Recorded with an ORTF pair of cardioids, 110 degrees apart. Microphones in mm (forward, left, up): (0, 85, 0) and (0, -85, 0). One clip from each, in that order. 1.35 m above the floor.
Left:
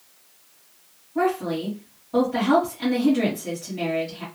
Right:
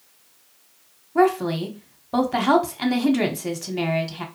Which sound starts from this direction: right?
A woman speaking, at 1.1 s.